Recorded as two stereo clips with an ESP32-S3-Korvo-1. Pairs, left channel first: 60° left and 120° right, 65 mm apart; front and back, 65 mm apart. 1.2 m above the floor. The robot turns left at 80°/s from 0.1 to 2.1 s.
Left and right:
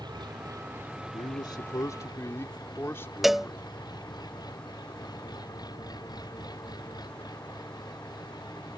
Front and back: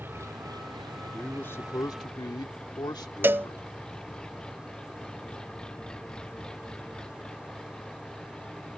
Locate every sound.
0.0 s an engine running: 120° right; by 8.8 s 80° left
1.1 s a man speaking: 85° left; by 3.6 s 5° left
3.2 s a cowbell: 155° left